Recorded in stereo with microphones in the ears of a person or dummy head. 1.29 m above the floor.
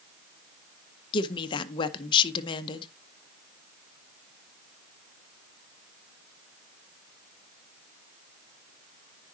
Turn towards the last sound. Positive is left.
turn(degrees=25)  # may be behind; listen again after turning